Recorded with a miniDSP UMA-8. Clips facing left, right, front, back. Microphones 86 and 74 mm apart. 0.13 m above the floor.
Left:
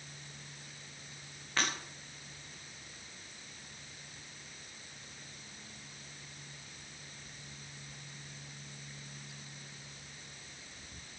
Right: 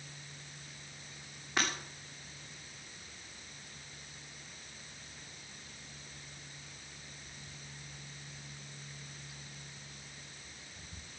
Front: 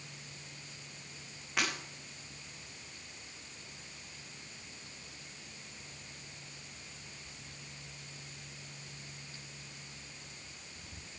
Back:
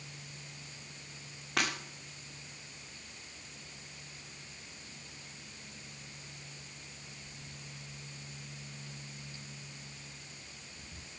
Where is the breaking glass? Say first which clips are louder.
Right 1 dB, back 1 dB; 165° right, 8.5 m.